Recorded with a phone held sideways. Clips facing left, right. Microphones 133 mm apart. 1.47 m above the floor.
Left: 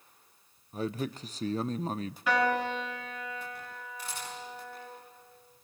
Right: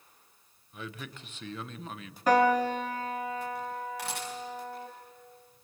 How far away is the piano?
About 2.5 m.